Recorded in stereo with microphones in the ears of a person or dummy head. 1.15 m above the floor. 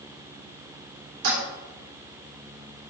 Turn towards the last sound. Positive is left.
turn(degrees=-70)  # may be behind; listen again after turning